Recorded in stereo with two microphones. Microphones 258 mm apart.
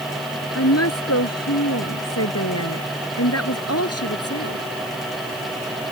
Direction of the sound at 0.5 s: 75° left (ahead or behind).